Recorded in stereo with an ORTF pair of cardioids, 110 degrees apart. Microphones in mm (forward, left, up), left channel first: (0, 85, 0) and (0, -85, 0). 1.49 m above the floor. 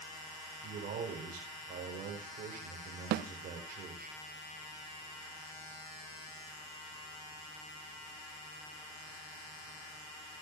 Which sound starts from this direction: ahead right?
A man speaking, at 0.6 s.